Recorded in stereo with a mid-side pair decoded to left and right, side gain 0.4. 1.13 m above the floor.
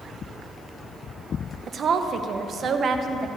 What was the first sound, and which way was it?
A woman speaking, 60° right.